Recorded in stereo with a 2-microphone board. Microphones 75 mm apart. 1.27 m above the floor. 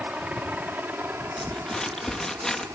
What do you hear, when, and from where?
0.0 s a helicopter: 15° right (ahead or behind); by 2.8 s 40° right (ahead or behind)
1.4 s crumpling: 10° left (ahead or behind)